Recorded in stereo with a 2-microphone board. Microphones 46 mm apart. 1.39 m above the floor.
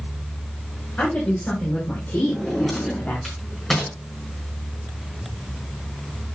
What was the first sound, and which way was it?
A woman speaking, 30° left (ahead or behind).